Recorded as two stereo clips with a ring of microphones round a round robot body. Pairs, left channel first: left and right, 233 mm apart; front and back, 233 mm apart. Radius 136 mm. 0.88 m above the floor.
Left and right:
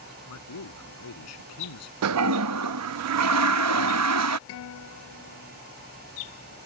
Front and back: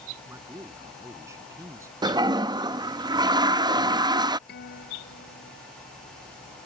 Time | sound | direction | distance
0.3 | a man speaking | 100° left | ?
2.0 | a toilet flushing | 105° right | ?
4.5 | a guitar | 55° left | ?